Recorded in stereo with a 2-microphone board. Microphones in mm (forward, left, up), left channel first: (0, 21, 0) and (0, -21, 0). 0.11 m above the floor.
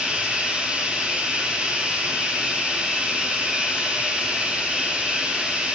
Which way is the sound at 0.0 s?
25° right (ahead or behind).